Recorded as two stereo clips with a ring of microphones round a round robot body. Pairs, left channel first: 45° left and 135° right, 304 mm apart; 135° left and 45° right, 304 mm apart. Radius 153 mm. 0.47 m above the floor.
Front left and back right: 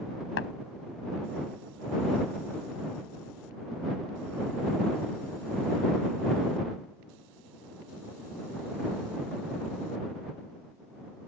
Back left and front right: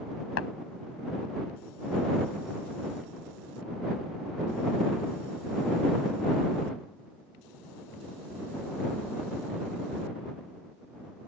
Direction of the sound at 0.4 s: 90° left.